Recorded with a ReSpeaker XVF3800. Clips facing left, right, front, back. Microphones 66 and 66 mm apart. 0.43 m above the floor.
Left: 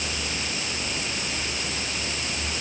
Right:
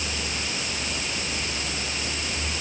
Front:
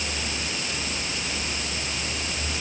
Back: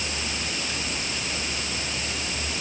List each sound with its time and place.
Only background noise.